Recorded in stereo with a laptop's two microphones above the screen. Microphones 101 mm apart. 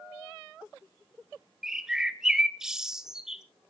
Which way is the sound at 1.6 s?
5° right (ahead or behind).